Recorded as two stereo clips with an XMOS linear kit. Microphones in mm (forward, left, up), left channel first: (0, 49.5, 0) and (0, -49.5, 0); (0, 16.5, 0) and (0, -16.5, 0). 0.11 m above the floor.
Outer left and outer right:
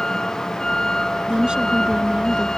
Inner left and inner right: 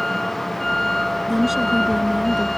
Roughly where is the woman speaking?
Centre.